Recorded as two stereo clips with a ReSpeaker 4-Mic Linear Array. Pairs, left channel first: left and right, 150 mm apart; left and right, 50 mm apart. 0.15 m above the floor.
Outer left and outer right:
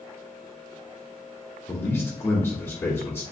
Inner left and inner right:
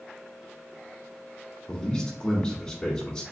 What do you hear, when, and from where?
1.7 s a man speaking: 15° left (ahead or behind), 1.4 m